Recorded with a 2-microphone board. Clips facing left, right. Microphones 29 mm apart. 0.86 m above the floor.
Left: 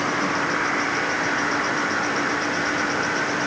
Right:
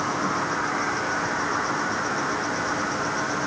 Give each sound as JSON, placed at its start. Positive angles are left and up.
{"t": 0.0, "sound": "an insect", "side_deg": 60, "distance_m": 6.5}